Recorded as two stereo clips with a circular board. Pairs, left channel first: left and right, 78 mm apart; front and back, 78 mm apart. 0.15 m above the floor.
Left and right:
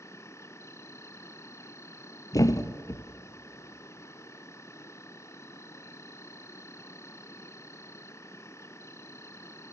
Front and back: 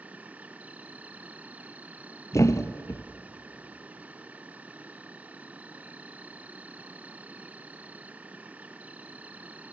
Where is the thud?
50° left, 0.9 m.